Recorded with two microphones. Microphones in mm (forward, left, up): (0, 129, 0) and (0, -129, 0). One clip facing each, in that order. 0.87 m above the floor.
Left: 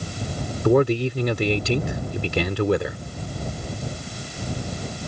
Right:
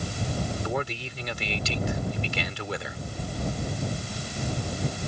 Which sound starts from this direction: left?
A man speaking, at 0.7 s.